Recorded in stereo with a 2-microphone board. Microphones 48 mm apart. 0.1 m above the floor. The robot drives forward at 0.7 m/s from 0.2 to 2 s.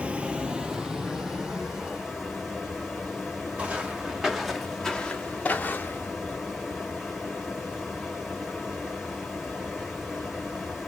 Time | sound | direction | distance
0.0 | running water | 25° right (ahead or behind) | 0.7 m
3.6 | footsteps | 30° right (ahead or behind) | 1.4 m